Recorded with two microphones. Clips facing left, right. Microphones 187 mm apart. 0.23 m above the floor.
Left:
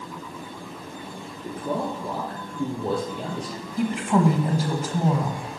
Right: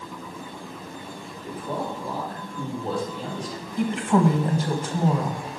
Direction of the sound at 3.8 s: 5° left (ahead or behind).